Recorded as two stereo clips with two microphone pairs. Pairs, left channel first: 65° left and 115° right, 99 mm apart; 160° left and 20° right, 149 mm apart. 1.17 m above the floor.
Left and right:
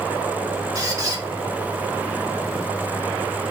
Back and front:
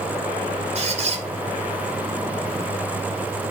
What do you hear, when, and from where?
0.8 s a squeak: 60° right, 0.8 m